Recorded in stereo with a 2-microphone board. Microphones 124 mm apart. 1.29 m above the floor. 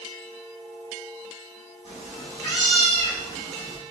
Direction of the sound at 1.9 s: 45° left (ahead or behind).